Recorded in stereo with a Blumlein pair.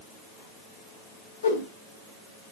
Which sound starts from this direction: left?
A whoosh, at 1.4 s.